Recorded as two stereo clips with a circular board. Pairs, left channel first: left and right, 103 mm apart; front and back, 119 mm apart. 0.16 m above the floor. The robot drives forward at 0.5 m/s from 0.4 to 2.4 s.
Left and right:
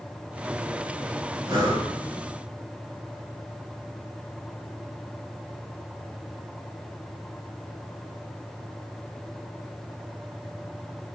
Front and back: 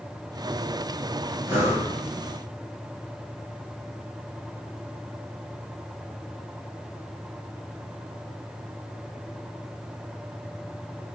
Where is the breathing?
120° right, 1.5 m; by 1.9 s 125° right, 1.6 m.